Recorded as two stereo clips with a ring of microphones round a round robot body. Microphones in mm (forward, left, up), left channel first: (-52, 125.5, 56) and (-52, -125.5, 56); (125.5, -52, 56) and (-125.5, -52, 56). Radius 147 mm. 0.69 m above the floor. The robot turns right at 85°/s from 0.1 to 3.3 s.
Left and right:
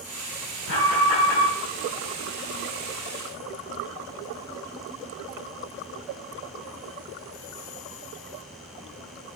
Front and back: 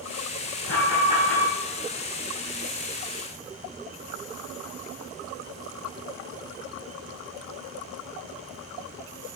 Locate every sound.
0.7 s an alarm: 35° left, 3.5 m; by 1.5 s 105° left, 3.5 m